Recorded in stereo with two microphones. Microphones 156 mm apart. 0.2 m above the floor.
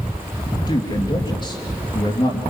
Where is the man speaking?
30° left (ahead or behind), 3 m.